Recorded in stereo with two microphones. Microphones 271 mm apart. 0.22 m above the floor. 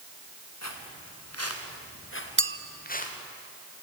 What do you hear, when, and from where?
0.6 s footsteps: 85° left, 4 m; by 3.1 s 30° left (ahead or behind), 4 m
2.4 s a clink: 50° right (ahead or behind), 1.0 m